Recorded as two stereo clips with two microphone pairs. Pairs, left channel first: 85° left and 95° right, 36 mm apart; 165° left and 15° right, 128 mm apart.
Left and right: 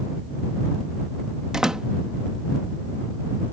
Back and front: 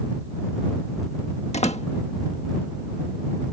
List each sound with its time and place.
1.5 s a door slam: 165° right